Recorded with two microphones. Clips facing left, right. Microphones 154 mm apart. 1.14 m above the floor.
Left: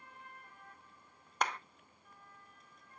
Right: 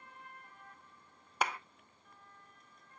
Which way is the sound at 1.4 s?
5° right (ahead or behind).